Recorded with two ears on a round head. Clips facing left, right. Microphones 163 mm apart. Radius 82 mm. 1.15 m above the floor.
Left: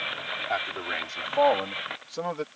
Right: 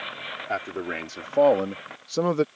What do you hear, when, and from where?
0.5 s a man speaking: 40° right (ahead or behind); by 2.5 s 60° right (ahead or behind)